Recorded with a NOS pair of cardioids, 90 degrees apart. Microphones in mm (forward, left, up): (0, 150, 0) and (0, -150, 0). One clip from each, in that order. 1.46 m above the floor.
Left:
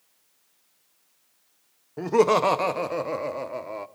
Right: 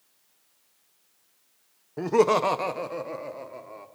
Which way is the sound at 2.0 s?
5° right.